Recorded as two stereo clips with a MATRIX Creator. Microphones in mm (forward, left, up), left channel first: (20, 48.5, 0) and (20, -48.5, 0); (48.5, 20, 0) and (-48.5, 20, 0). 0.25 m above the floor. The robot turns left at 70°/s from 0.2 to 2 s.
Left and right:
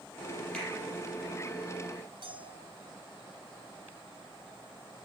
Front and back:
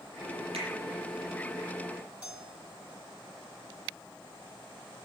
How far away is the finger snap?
About 8 m.